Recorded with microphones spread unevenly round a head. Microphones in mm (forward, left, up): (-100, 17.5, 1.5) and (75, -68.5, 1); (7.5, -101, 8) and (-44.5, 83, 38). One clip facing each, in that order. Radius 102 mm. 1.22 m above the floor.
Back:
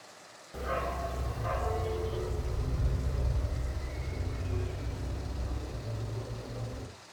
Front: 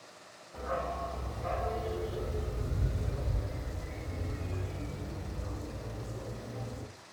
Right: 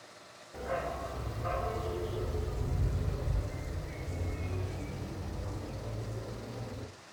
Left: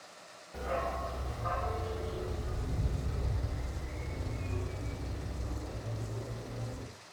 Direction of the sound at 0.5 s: 170° right.